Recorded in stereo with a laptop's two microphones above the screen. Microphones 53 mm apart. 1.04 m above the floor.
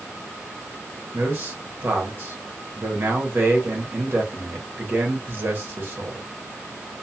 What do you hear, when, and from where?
1.1 s a man speaking: 45° right (ahead or behind), 1.0 m